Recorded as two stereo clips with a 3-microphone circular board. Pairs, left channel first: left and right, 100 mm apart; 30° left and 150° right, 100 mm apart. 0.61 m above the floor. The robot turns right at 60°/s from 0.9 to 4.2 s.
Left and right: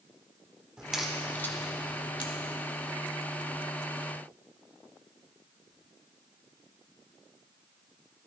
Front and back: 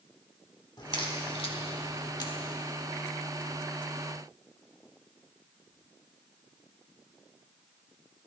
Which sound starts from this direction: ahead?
A crack, at 0.8 s.